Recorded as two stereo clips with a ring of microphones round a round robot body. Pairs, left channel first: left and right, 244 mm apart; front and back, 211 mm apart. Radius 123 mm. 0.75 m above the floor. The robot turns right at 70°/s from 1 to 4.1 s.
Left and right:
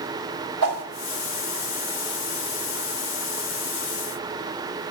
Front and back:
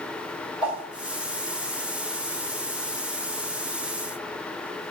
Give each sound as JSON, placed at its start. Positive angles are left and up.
{"t": 0.6, "sound": "a whoosh", "azimuth_deg": -95, "distance_m": 1.8}